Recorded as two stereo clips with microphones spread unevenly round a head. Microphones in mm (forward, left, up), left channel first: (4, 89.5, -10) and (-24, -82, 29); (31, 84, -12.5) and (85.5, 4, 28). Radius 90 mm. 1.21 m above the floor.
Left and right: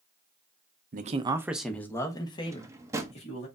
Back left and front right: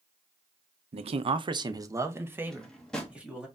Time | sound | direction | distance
0.9 | a man speaking | 55° right | 0.6 m
2.5 | a drawer | 105° right | 0.6 m